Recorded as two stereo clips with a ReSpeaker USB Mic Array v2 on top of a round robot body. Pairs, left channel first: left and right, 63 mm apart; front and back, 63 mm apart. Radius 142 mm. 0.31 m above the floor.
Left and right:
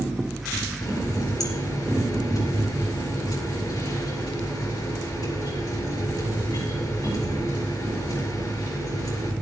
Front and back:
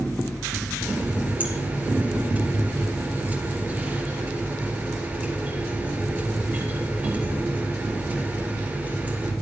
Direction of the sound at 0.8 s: 115° left.